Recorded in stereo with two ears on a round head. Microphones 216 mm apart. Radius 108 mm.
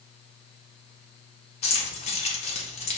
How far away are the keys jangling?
About 1.1 m.